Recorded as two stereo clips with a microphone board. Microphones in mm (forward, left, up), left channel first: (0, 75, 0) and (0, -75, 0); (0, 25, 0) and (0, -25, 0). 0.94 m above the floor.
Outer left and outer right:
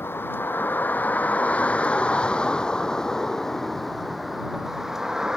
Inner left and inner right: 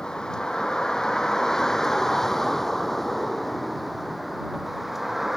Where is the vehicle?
15° left (ahead or behind); by 5.4 s 5° right (ahead or behind).